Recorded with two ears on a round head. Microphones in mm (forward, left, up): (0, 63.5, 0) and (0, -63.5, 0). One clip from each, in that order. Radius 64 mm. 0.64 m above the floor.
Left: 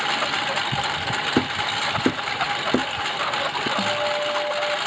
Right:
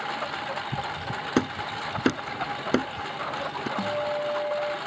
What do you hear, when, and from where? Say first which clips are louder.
0.0 s a lawn mower: left 8 dB; 55° left (ahead or behind)
1.4 s hammering: left 6 dB; 70° right (ahead or behind)
3.8 s a guitar: left 2 dB; 30° right (ahead or behind)